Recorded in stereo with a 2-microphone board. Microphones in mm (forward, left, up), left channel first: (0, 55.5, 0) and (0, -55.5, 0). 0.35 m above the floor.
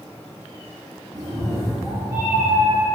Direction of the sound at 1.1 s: 35° right (ahead or behind).